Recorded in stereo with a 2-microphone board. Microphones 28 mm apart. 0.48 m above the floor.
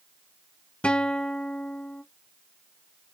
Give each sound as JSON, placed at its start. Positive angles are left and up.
{"t": 0.8, "sound": "a guitar", "side_deg": 40, "distance_m": 0.6}